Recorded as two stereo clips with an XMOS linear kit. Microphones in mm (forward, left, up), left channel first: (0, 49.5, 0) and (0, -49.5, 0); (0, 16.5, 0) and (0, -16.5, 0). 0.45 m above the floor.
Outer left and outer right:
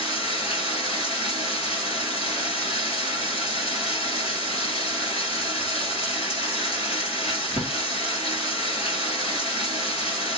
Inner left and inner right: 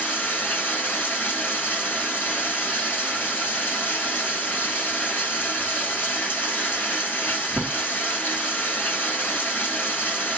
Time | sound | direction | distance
0.0 | running water | 80° left | 1.4 m